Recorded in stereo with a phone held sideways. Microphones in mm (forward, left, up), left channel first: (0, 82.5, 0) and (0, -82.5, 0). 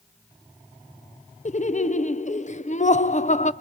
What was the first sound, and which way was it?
Laughter, 50° left (ahead or behind).